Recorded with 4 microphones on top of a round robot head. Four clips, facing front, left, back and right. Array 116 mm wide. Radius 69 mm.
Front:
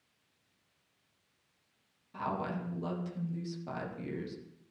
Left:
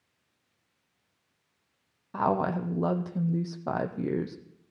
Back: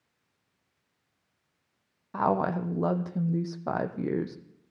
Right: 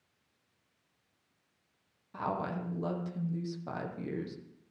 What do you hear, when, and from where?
2.1 s a woman speaking: 140° left, 0.9 m